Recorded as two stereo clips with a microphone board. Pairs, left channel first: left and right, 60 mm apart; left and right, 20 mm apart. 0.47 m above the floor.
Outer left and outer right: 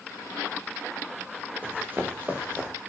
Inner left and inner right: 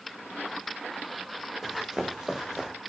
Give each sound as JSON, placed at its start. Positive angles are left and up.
{"t": 1.6, "sound": "running footsteps", "side_deg": -30, "distance_m": 5.5}